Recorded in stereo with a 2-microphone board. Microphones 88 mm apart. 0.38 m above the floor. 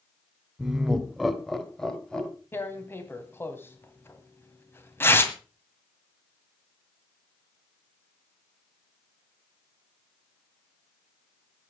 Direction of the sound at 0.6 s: 5° right (ahead or behind).